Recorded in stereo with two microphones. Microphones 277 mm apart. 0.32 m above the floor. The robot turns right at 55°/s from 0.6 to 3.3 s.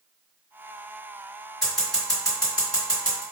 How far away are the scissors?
About 1.7 m.